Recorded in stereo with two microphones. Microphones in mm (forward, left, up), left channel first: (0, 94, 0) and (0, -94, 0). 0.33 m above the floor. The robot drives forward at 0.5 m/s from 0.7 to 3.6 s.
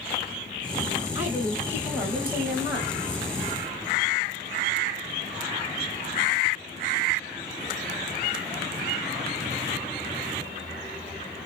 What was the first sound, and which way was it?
A woman speaking, 10° right (ahead or behind).